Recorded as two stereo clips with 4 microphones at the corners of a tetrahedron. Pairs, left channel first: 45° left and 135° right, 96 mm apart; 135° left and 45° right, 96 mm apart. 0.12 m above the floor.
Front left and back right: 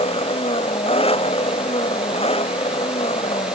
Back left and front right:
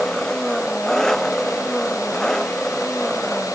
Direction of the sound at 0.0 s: 50° left.